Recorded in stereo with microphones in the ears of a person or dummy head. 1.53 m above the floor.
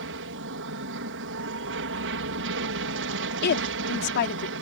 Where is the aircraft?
60° right (ahead or behind).